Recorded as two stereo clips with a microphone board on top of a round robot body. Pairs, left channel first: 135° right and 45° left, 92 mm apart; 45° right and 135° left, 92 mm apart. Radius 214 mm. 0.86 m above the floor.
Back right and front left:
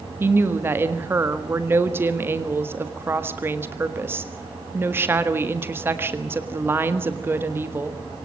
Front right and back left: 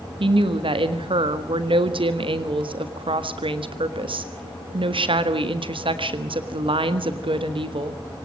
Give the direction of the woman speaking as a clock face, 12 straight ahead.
8 o'clock.